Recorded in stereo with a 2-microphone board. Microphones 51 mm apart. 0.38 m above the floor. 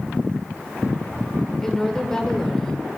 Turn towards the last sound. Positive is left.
turn(degrees=10)  # may be behind; listen again after turning